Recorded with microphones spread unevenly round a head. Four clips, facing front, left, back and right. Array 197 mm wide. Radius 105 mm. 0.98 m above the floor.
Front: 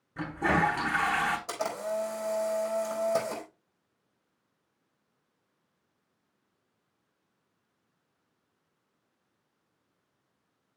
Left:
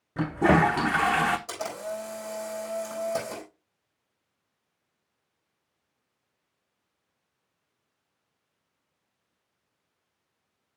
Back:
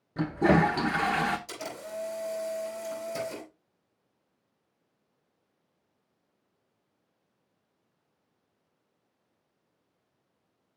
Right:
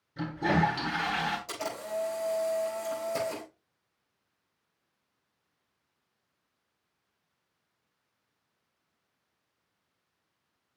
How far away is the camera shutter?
About 4.5 m.